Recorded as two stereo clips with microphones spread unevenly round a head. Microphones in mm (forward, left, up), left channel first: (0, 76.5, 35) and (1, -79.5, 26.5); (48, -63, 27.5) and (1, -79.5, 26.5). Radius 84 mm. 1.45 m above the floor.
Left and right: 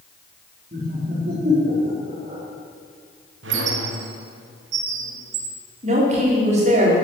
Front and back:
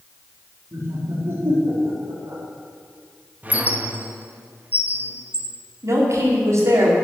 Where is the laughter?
140° right, 4 m.